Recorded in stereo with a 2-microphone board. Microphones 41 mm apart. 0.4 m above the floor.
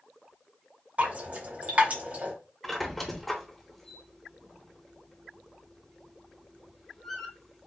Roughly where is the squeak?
Centre.